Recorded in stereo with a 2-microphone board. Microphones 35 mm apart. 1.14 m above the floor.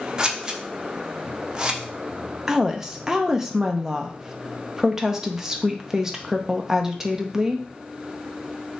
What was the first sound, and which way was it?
Scissors, 20° right (ahead or behind).